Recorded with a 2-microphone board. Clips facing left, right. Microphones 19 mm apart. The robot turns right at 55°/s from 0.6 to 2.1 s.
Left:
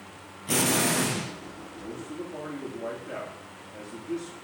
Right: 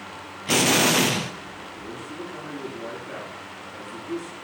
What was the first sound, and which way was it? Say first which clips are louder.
An explosion: right 6 dB; 140° right.